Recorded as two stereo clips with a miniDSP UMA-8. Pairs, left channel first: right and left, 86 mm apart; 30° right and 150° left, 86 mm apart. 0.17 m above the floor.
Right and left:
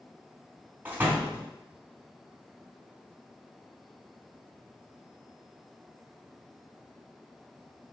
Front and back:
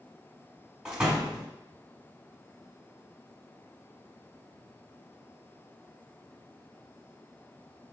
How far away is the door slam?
About 0.7 m.